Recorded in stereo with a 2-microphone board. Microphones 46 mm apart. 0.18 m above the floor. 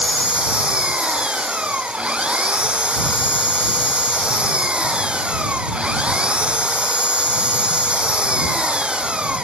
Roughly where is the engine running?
Right.